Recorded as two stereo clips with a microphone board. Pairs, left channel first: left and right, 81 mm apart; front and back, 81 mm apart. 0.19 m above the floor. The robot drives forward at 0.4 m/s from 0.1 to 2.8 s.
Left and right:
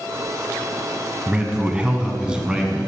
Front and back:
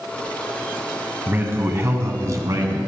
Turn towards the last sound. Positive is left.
turn(degrees=-165)